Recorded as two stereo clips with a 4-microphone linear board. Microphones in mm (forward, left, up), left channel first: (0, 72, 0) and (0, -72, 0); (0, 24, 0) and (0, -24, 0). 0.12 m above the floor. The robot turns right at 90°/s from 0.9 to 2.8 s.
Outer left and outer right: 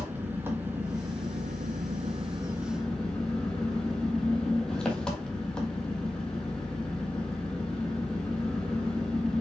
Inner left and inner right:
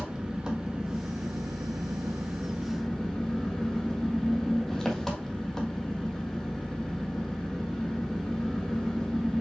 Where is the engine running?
165° right, 1.7 m; by 9.4 s 5° left, 1.7 m.